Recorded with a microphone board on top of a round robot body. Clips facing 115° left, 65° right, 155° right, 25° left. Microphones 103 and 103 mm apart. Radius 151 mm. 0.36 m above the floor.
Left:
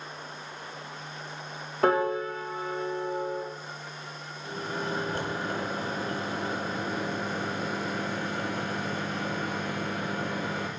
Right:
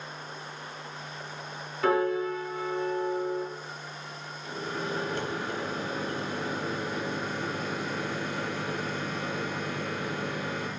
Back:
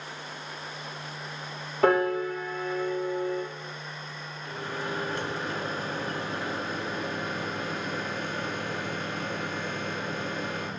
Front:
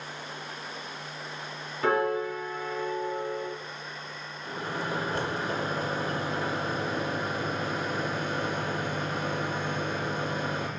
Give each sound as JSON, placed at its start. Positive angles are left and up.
{"t": 1.8, "sound": "a piano", "azimuth_deg": 160, "distance_m": 1.2}
{"t": 4.4, "sound": "a microwave", "azimuth_deg": 75, "distance_m": 1.3}